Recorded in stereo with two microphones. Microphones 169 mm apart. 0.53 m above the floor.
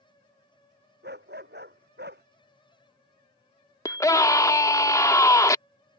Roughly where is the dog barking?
Right.